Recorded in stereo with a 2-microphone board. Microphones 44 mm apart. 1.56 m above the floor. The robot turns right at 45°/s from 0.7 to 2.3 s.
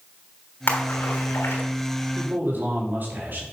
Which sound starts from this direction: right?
A man speaking, at 2.1 s.